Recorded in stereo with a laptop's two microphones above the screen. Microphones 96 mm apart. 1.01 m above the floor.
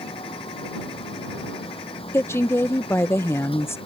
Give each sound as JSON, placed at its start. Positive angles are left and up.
{"t": 0.0, "sound": "a fan", "side_deg": 80}
{"t": 2.1, "sound": "a woman speaking", "side_deg": 25}